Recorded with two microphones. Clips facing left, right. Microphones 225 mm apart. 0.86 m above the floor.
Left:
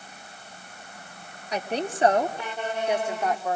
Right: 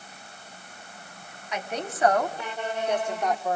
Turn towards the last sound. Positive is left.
turn(degrees=0)  # may be behind; listen again after turning